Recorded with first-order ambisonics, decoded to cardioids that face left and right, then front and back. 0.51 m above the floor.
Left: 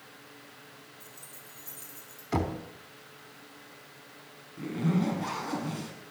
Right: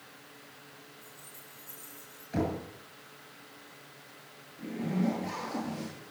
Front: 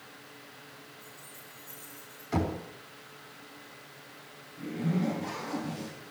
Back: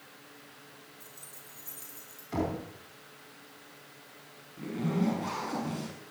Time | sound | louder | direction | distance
1.0 | keys jangling | left 1 dB, front 2 dB | 130° left | 5 m
2.3 | knocking | left 1 dB, front 1 dB | 75° left | 3.5 m
4.6 | a zipper | left 3 dB, back 1 dB | 110° left | 5 m